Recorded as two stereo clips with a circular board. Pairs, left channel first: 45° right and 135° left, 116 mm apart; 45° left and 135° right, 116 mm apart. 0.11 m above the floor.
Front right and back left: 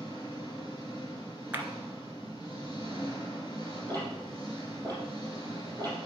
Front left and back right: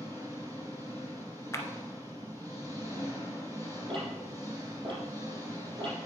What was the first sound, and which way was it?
An engine running, 80° right.